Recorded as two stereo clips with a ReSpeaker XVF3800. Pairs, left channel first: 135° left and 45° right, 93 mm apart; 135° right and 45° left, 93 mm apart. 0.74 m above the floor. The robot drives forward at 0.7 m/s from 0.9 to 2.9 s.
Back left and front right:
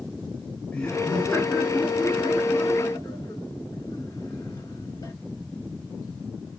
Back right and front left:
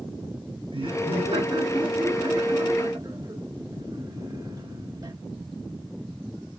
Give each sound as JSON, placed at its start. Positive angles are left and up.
{"t": 0.7, "sound": "laughter", "azimuth_deg": 55, "distance_m": 3.0}